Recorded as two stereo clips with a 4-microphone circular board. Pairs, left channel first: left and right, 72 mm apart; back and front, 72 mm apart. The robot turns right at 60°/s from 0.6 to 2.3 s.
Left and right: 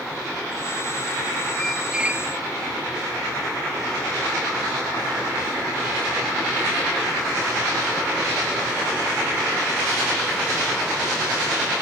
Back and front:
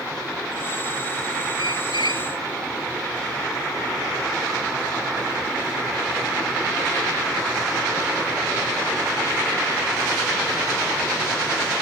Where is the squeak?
170° left; by 2.3 s 150° right.